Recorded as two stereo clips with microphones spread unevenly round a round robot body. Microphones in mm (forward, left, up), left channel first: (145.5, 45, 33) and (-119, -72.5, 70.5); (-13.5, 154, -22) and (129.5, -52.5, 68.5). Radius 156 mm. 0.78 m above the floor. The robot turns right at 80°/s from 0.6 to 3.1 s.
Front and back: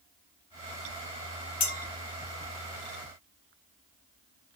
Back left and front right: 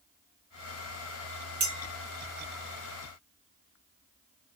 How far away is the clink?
About 1.4 m.